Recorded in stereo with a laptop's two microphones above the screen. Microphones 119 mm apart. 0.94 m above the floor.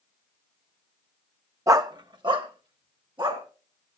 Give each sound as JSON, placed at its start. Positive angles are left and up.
{"t": 1.7, "sound": "a dog barking", "side_deg": -25, "distance_m": 0.6}